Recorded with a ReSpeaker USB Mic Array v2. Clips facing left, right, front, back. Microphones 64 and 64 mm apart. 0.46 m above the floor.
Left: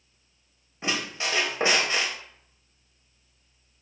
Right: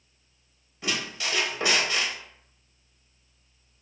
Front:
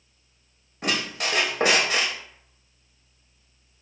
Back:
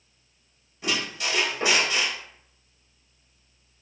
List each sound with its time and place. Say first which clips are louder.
0.8 s a squeak: left 2 dB, front 2 dB; 30° left, 0.6 m